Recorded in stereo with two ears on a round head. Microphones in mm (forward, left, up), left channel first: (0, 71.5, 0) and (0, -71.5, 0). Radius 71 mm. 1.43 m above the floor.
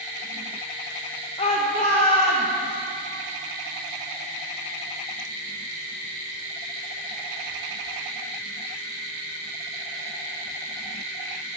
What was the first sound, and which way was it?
A shout, 35° left (ahead or behind).